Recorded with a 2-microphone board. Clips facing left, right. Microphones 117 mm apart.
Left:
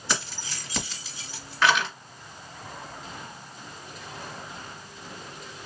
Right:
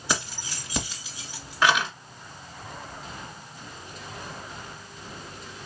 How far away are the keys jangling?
About 1.6 m.